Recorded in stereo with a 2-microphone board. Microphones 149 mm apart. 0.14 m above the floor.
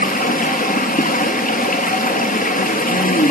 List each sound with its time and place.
0.0 s running water: 70° left (ahead or behind), 0.9 m